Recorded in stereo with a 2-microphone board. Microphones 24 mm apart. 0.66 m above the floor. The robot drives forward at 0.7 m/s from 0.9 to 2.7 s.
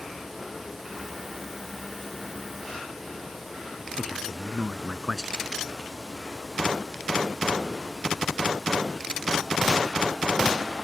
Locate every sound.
4.0 s a man speaking: 20° right (ahead or behind)